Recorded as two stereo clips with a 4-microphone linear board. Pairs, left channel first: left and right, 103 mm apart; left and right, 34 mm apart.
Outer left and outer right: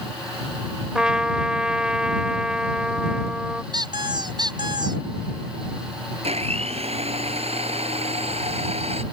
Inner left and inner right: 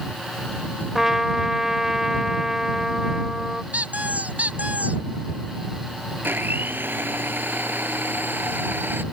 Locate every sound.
0.9 s a trumpet: 10° right (ahead or behind)
3.7 s a squeak: 45° right (ahead or behind)
6.2 s a blender: 85° right